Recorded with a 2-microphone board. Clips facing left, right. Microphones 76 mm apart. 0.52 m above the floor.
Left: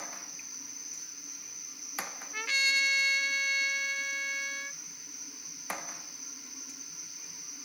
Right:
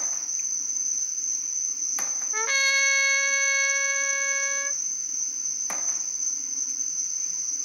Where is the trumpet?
50° right (ahead or behind).